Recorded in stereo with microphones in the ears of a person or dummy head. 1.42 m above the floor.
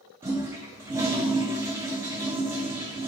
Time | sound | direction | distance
0.2 | a toilet flushing | 15° right (ahead or behind) | 0.5 m